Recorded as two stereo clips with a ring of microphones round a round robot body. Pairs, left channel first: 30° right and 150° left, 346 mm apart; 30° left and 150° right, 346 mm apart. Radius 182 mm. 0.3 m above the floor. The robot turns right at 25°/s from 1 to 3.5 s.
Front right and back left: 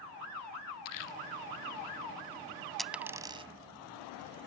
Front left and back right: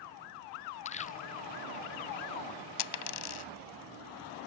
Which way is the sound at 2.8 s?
60° left.